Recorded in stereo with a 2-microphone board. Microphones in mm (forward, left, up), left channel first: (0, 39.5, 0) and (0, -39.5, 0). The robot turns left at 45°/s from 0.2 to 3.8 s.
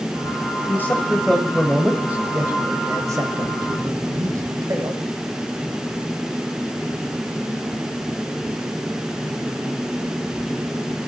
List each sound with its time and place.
0.7 s a man speaking: 45° left, 1.5 m; by 5.0 s 95° right, 1.5 m